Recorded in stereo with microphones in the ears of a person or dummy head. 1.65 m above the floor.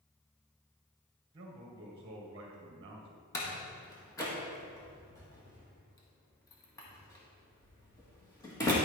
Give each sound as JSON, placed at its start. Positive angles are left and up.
{"t": 1.3, "sound": "a man speaking", "side_deg": -30, "distance_m": 1.6}
{"t": 3.3, "sound": "a door slam", "side_deg": 20, "distance_m": 1.5}